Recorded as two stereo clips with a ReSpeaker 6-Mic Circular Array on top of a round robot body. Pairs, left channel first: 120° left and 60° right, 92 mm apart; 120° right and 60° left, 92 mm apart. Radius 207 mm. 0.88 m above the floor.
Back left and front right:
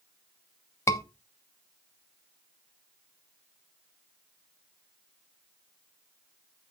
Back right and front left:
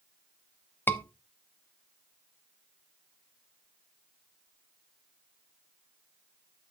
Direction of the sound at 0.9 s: 175° left.